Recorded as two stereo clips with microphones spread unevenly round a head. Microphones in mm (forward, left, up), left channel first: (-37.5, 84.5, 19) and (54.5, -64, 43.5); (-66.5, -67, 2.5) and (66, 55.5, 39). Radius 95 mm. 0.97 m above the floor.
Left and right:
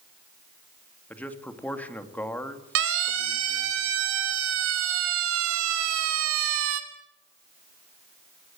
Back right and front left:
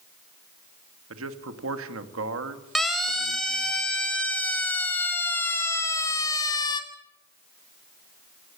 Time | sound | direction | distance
1.1 | a man speaking | 45° left | 2 m
2.8 | a siren | 50° right | 4 m